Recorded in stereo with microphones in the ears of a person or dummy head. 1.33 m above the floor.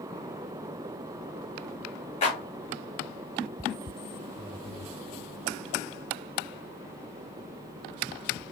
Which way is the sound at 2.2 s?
30° left (ahead or behind).